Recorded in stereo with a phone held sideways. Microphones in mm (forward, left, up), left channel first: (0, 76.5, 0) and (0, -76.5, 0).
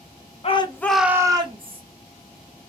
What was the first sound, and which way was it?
A shout, 40° left (ahead or behind).